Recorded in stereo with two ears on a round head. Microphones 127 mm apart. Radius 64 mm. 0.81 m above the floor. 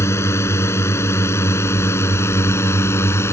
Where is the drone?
20° left (ahead or behind).